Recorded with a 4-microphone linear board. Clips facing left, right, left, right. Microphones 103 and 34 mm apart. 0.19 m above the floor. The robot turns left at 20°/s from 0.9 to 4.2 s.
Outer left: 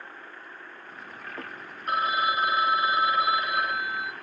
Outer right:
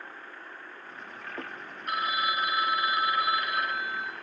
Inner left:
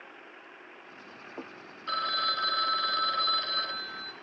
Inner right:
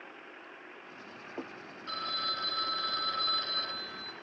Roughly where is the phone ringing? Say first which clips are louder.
Outer left 4 dB, inner left 6 dB; left.